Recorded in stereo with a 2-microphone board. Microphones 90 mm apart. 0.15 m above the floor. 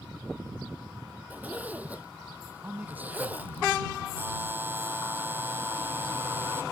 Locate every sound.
1.3 s a zipper: 20° right (ahead or behind)
2.6 s a man speaking: 20° right (ahead or behind)
4.2 s a buzzer: 25° right (ahead or behind)